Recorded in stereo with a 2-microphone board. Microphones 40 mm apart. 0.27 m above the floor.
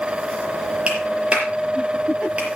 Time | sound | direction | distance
0.9 | a clap | 30° right (ahead or behind) | 5.5 m